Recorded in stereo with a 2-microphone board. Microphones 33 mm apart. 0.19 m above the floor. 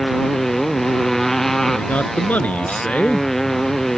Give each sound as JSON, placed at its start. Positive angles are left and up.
{"t": 0.0, "sound": "a motorcycle", "side_deg": 10}
{"t": 1.7, "sound": "a man speaking", "side_deg": 50}